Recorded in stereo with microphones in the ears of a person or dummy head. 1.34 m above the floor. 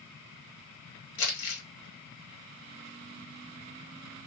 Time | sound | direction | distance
1.2 | crumpling | 60° left (ahead or behind) | 1.3 m